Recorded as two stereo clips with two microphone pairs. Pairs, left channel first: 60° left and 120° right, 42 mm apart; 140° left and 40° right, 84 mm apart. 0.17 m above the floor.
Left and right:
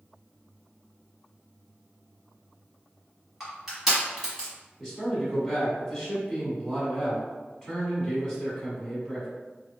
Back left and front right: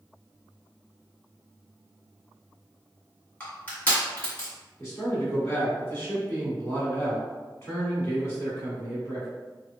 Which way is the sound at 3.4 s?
Straight behind.